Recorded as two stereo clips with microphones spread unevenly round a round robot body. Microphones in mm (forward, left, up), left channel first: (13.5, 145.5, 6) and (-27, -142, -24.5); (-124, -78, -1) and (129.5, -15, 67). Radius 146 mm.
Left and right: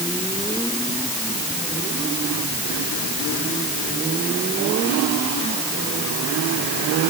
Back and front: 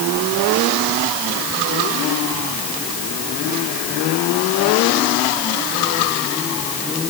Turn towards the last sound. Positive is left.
No sound to turn to.